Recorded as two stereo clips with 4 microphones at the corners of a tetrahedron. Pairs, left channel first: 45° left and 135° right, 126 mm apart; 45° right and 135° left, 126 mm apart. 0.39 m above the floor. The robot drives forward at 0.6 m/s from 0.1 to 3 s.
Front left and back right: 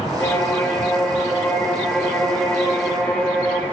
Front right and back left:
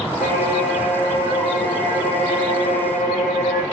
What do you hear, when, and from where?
0.2 s a violin: 30° right, 7 m; by 3.6 s 40° right, 5.5 m